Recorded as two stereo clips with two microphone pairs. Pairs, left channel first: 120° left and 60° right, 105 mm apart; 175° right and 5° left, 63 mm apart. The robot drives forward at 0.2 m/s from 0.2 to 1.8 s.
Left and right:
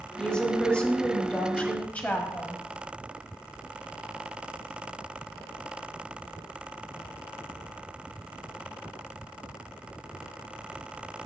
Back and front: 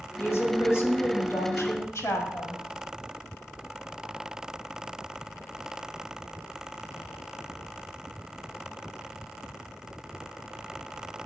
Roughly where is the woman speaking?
Behind.